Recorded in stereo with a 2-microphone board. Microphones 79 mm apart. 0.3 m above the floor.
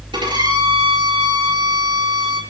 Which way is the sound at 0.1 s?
75° right (ahead or behind).